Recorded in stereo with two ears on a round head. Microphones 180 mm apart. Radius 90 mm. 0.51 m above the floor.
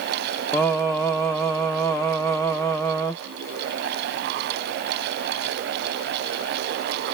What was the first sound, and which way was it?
Singing, 15° left (ahead or behind).